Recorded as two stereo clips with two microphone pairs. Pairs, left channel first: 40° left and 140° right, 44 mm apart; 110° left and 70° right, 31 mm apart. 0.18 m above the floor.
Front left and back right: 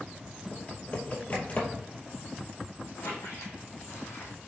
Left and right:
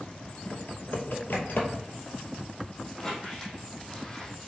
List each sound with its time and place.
0.5 s typing on a keyboard: 90° left, 2.5 m
3.0 s a squeak: 40° left, 3 m